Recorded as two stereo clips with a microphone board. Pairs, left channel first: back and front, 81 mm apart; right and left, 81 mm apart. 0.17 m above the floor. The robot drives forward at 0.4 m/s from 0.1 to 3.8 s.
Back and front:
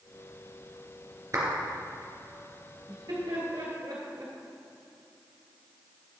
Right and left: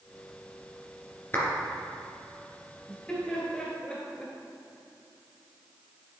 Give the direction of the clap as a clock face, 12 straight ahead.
1 o'clock.